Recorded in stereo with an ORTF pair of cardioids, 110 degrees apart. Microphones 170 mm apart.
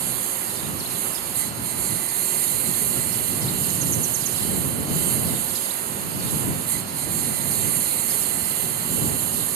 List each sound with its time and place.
0.0 s a lawn mower: 65° right